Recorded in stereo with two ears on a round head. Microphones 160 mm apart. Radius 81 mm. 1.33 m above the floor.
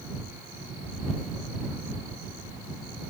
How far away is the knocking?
No knocking in this recording.